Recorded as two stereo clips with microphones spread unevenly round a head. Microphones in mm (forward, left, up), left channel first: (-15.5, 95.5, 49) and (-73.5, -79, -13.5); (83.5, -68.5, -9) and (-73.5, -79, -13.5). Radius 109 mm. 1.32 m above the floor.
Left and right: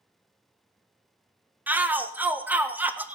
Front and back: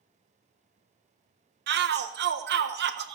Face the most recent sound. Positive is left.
turn(degrees=175)